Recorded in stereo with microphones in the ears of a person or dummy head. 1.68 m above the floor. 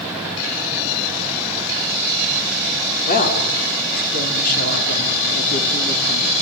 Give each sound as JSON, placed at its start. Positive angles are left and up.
{"t": 3.1, "sound": "a woman speaking", "side_deg": 45, "distance_m": 5.5}